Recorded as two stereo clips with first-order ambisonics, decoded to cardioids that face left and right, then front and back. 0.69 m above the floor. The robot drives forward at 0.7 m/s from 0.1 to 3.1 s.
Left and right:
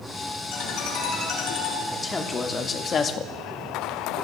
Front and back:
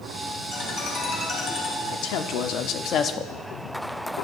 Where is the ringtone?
45° left, 4 m; by 1.8 s 55° left, 3 m.